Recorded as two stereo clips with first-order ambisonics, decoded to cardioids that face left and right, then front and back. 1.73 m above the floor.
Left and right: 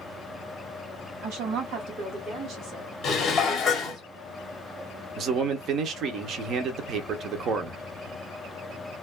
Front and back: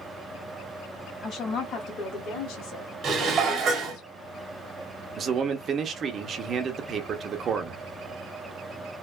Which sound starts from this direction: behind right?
A man speaking, at 5.2 s.